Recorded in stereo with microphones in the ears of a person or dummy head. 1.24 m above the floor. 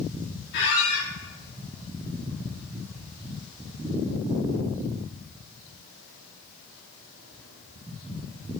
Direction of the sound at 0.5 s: 55° left (ahead or behind).